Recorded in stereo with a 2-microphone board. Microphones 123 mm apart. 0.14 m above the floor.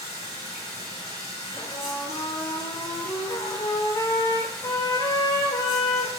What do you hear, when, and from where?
0.0 s running water: 30° right (ahead or behind), 2 m
1.6 s a trumpet: 30° left (ahead or behind), 0.7 m